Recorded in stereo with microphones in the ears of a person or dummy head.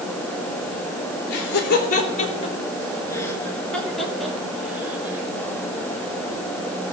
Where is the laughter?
65° left (ahead or behind), 2 m; by 5.3 s 5° right (ahead or behind), 4 m.